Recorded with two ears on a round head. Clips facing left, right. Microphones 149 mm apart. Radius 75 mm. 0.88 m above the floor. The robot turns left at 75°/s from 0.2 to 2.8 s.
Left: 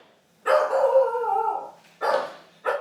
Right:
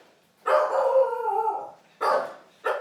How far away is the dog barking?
About 1.1 m.